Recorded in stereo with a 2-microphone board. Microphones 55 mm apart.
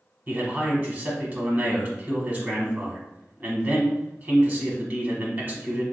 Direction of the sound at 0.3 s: 35° right (ahead or behind).